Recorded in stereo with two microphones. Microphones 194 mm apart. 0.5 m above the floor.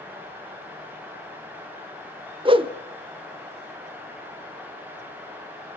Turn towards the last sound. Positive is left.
turn(degrees=-25)  # may be behind; listen again after turning